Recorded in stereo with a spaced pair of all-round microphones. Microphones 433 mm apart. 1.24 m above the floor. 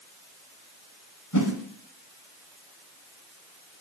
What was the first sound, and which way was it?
A whoosh, 45° left (ahead or behind).